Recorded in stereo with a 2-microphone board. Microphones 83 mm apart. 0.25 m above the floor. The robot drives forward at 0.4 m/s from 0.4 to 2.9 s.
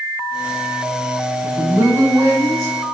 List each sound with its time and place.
1.4 s a woman speaking: 40° right (ahead or behind), 1.2 m; by 2.8 s 35° right (ahead or behind), 1.4 m